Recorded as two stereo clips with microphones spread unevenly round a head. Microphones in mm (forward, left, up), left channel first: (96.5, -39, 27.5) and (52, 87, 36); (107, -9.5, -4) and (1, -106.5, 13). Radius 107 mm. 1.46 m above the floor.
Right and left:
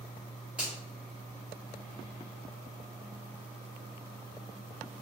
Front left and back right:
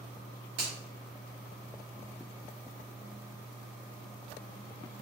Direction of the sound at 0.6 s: 165° right.